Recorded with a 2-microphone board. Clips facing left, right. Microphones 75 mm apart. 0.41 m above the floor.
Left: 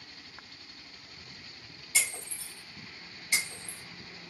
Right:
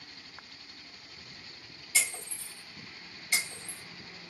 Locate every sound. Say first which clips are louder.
1.9 s breaking glass: even; 5° left (ahead or behind), 1.8 m